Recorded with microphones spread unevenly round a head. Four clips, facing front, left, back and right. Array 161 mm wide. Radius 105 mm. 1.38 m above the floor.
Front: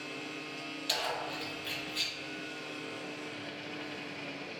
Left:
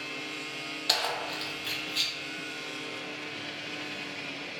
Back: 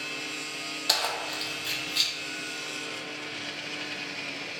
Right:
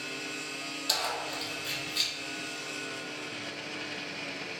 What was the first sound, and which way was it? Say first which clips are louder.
Keys jangling: left 2 dB, back 4 dB; 155° left.